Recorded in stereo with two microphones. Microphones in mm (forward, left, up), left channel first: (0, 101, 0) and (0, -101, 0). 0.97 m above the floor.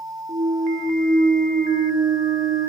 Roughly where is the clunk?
Right.